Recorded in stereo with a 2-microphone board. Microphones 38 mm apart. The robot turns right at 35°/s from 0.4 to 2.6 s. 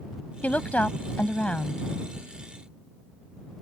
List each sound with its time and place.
0.4 s a woman speaking: 85° left; by 1.9 s 135° left